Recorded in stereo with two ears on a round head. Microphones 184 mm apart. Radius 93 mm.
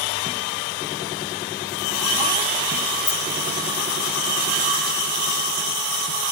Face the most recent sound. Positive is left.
turn(degrees=5)  # may be behind; listen again after turning